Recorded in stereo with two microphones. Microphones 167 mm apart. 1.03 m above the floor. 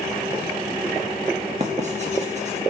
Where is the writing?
45° right (ahead or behind), 1.7 m.